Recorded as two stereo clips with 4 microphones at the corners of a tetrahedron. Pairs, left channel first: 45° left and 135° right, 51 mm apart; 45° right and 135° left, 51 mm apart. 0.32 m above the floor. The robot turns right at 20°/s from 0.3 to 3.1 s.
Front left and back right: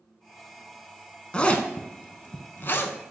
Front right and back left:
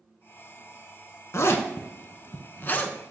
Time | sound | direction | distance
1.3 | a zipper | 25° right | 0.5 m